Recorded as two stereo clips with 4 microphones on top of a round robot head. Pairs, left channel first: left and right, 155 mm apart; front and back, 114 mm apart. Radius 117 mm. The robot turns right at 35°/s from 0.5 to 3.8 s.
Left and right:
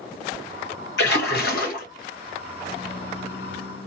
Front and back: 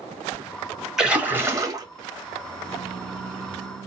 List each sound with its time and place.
1.0 s a splash: 90° left, 1.7 m; by 1.9 s 125° left, 1.7 m